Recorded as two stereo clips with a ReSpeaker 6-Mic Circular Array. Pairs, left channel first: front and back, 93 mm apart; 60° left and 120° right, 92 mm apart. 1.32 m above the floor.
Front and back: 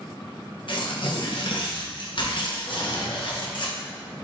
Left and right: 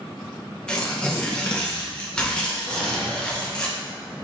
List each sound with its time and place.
0.7 s tearing paper: 20° right, 1.0 m
2.7 s a drawer: 50° right, 1.3 m